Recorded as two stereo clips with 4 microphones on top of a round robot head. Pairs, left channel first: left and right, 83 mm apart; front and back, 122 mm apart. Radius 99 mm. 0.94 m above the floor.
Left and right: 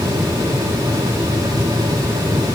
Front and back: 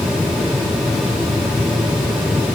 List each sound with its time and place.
Only background noise.